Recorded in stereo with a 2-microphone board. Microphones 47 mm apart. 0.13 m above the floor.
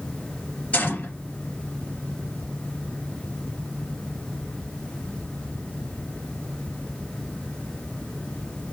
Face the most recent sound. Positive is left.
turn(degrees=35)  # may be behind; listen again after turning